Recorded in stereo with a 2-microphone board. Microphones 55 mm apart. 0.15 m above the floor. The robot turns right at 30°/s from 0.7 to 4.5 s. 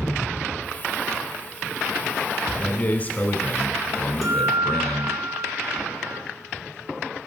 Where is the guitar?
5° right (ahead or behind), 2.5 m; by 6.2 s 10° right (ahead or behind), 2.5 m.